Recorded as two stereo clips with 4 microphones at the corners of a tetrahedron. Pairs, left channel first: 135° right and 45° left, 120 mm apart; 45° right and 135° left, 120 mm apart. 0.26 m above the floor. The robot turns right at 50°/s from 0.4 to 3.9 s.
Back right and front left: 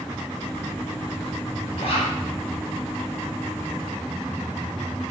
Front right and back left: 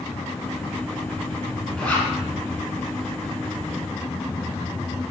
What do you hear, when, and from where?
1.8 s a zipper: 130° right, 2 m; by 2.1 s 110° right, 2 m